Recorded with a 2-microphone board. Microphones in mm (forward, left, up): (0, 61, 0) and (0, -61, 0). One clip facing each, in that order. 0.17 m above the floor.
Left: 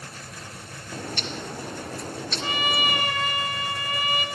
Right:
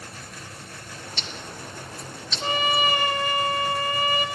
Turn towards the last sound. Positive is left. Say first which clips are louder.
# right 4 dB
turn(degrees=-30)  # may be behind; listen again after turning